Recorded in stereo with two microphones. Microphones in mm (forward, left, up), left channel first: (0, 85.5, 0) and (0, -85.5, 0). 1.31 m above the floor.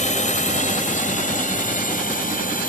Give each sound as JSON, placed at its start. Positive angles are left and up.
{"t": 0.0, "sound": "a drone", "side_deg": 45}